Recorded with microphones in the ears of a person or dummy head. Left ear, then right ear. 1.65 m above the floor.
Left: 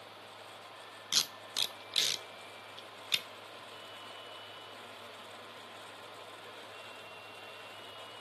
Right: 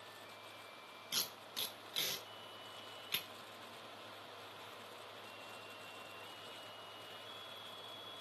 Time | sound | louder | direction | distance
1.1 | tape being pulled | left 9 dB | 25° left (ahead or behind) | 0.5 m